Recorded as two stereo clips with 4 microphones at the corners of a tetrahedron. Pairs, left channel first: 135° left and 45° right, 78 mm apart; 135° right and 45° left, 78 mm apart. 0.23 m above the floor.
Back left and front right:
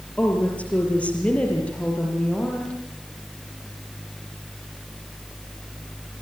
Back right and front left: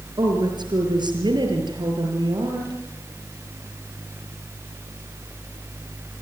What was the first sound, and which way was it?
A woman speaking, 65° left.